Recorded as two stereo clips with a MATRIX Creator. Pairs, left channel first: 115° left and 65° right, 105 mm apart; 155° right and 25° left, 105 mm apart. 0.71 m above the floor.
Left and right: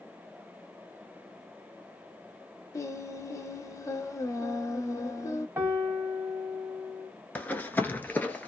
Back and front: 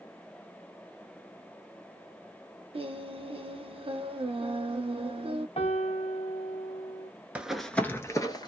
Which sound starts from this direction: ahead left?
Singing, at 2.7 s.